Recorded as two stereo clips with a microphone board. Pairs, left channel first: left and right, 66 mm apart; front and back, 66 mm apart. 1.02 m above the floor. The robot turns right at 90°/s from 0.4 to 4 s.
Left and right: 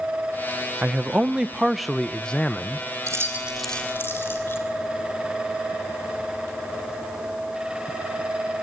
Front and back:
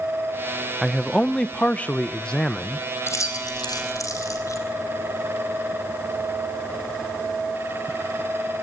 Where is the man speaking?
95° right, 0.7 m; by 2.9 s 90° left, 0.7 m.